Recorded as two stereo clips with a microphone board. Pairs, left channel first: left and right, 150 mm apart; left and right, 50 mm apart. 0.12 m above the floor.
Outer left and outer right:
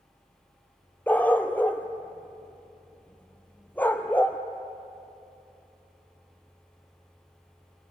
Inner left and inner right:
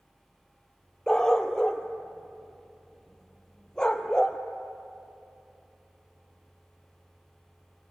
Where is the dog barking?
10° left (ahead or behind), 1.2 m.